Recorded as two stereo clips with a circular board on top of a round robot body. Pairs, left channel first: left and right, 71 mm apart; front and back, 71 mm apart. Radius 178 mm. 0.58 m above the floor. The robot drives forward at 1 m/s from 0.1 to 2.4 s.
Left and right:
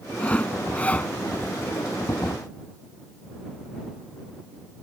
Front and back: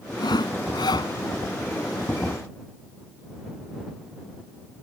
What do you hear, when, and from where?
0.2 s sawing: 15° left; by 1.1 s 20° left